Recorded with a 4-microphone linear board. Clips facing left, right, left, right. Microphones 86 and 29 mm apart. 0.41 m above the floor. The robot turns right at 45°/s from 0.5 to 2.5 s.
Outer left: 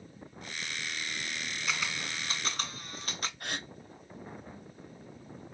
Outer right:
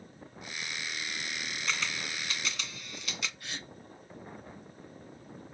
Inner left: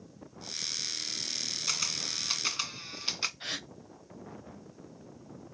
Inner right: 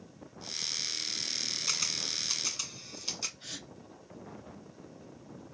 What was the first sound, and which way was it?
A camera shutter, 5° left (ahead or behind).